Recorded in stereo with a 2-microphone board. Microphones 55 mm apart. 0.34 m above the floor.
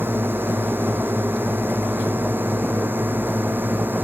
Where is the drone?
40° right (ahead or behind).